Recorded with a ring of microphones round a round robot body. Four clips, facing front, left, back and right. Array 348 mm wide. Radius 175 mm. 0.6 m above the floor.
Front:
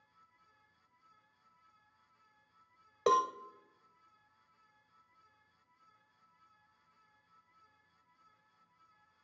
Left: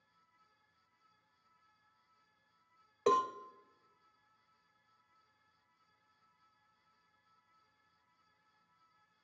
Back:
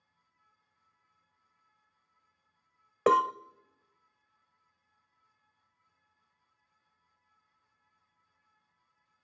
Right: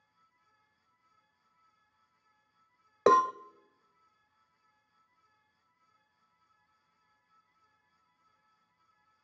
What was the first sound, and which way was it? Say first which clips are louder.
A cowbell: right 8 dB, back 5 dB; 120° right.